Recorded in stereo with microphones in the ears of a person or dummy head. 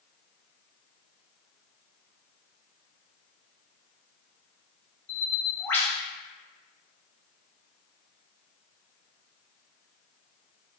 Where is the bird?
10° left (ahead or behind), 0.8 m.